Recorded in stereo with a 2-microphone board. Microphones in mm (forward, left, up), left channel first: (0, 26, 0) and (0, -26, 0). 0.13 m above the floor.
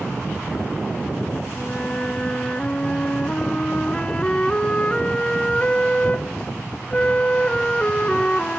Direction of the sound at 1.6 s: 20° left (ahead or behind).